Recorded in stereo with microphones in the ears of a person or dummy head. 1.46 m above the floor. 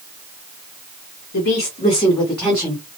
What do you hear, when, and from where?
1.3 s a woman speaking: 55° left (ahead or behind), 0.9 m; by 2.8 s 15° right (ahead or behind), 1.1 m